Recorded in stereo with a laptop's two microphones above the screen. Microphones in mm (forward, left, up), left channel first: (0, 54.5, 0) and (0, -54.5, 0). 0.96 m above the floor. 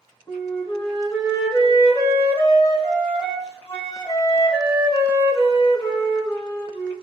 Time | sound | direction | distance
0.3 | a flute | 45° left (ahead or behind) | 1.0 m